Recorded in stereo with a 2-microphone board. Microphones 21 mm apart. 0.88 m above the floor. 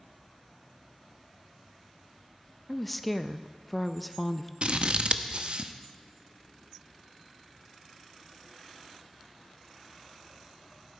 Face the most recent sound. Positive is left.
turn(degrees=-50)  # may be behind; listen again after turning